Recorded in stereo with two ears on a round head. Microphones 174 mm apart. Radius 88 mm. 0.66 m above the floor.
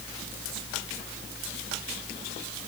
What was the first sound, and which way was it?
Only background noise.